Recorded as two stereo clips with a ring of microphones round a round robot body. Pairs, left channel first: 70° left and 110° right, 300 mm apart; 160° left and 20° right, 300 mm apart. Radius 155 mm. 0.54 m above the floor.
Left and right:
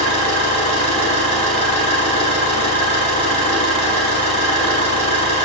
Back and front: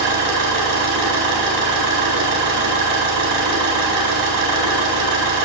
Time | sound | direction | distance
0.0 | an engine running | straight ahead | 4 m